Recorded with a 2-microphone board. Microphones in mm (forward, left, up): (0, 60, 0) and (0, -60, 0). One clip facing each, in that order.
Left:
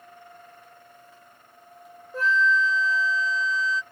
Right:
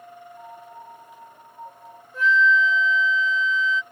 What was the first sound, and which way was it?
A piano, 85° right.